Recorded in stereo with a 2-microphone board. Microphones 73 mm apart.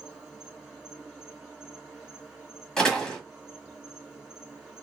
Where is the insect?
10° right (ahead or behind), 1.8 m.